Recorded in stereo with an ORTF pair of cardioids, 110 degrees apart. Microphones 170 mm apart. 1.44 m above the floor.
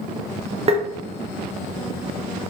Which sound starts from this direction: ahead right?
Tapping, at 0.7 s.